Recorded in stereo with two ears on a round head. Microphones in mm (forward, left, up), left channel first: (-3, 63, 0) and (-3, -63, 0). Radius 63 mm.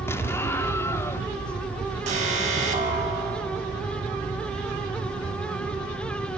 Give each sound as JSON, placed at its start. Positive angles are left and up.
{"t": 0.1, "sound": "an explosion", "side_deg": 20, "distance_m": 0.8}
{"t": 2.1, "sound": "an alarm", "side_deg": -50, "distance_m": 5.5}